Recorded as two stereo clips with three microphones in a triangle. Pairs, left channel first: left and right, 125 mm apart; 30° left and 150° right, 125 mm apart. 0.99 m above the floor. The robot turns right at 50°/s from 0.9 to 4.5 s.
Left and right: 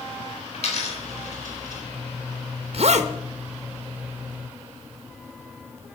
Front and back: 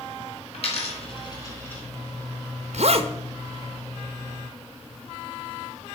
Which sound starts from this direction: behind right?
A zipper, at 2.7 s.